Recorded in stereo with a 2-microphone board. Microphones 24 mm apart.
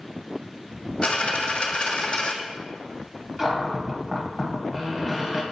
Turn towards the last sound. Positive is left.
turn(degrees=-15)  # may be behind; listen again after turning